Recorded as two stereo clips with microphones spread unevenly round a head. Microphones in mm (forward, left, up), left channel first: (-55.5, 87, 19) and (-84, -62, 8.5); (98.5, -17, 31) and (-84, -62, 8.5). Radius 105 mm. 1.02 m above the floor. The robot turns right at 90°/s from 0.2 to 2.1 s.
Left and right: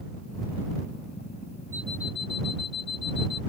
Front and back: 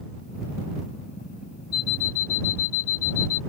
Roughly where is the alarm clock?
Ahead.